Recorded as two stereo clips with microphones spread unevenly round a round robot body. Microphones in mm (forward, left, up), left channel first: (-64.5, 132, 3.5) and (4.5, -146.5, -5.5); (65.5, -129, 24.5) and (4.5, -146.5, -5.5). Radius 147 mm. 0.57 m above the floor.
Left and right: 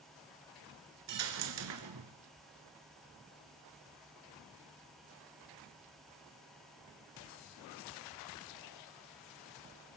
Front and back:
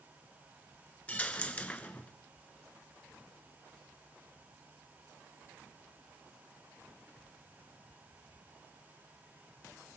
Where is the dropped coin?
40° right, 1.1 m.